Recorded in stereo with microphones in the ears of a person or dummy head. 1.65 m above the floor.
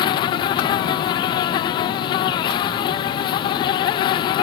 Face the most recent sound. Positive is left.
turn(degrees=25)  # may be behind; listen again after turning